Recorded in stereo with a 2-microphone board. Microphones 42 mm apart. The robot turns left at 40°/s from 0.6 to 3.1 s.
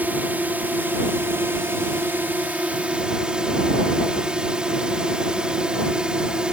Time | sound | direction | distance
0.0 | a drone | 55° right | ?